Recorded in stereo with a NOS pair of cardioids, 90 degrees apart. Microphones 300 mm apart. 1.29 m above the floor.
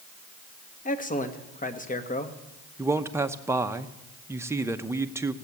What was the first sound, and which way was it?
A man speaking, 25° left.